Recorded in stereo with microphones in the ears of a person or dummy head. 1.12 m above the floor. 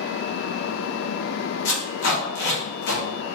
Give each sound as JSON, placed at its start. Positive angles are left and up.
{"t": 1.6, "sound": "tape being pulled", "side_deg": 65, "distance_m": 1.0}